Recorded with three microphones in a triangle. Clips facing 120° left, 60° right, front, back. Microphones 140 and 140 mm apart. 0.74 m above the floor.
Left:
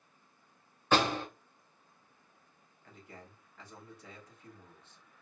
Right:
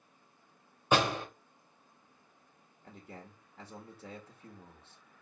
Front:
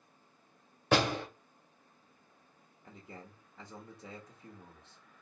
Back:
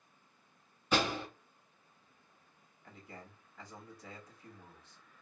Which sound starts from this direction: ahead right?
A man speaking, at 2.8 s.